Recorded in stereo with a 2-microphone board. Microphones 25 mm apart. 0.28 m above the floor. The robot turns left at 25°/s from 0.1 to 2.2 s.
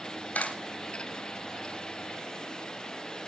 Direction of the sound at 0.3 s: 75° left (ahead or behind).